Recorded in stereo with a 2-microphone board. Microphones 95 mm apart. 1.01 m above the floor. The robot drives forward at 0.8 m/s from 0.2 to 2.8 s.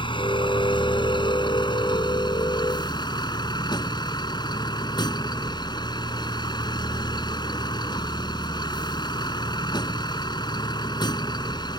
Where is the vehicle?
60° left (ahead or behind); by 11.8 s 50° left (ahead or behind).